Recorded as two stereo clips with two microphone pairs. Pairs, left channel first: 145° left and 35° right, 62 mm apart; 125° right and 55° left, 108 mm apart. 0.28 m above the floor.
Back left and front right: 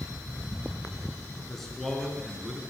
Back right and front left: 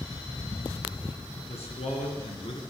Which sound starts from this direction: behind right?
A man speaking, at 1.5 s.